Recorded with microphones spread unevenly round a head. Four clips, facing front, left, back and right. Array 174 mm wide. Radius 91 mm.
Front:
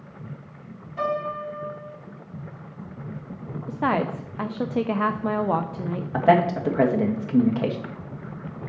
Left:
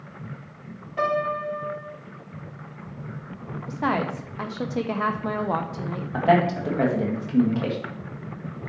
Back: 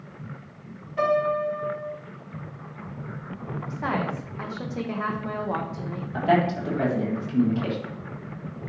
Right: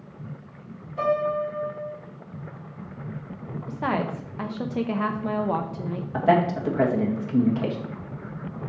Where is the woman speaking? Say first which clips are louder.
Left 1 dB, front 5 dB; 10° left, 0.5 m.